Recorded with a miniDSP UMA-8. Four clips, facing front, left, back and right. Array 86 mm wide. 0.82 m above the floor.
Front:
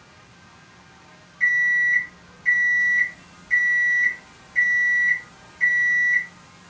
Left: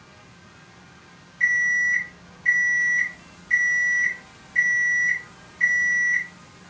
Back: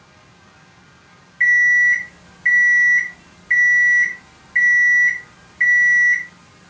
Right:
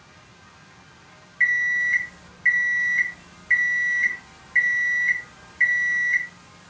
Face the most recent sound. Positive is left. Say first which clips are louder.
# even, back 6 dB
turn(degrees=-140)